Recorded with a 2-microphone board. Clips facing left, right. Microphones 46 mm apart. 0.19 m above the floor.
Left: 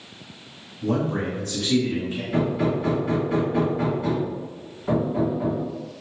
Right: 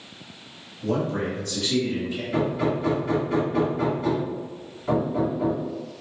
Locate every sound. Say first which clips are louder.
0.8 s a man speaking: left 1 dB; 45° left (ahead or behind), 1.6 m
2.3 s hammering: left 1 dB; 5° left (ahead or behind), 1.4 m